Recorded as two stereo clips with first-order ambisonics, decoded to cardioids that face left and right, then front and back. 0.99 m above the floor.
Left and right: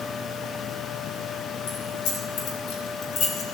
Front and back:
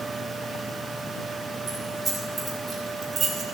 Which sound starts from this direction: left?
Keys jangling, at 1.7 s.